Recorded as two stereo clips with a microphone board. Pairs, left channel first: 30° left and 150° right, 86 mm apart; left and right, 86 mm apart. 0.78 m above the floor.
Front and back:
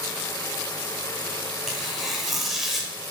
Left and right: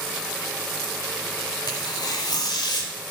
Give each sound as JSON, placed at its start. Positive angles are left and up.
{"t": 1.7, "sound": "tearing paper", "azimuth_deg": 120, "distance_m": 1.0}